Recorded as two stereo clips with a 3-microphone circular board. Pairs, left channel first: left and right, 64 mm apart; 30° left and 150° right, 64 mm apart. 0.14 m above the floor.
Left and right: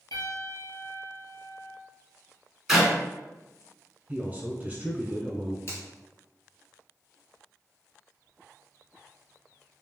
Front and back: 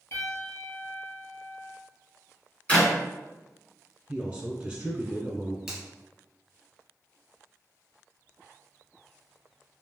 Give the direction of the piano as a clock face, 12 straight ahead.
10 o'clock.